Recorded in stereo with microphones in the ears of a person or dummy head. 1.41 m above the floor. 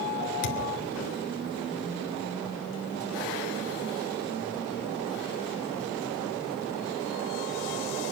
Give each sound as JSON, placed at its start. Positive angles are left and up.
{"t": 0.4, "sound": "a thud", "side_deg": 55, "distance_m": 1.5}